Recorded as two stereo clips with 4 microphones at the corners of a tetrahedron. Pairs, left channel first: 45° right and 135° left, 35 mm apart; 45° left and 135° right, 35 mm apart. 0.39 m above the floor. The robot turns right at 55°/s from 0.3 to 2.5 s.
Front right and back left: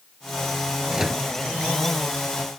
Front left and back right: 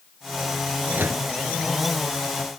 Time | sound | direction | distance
0.9 | a microwave | 155° right | ?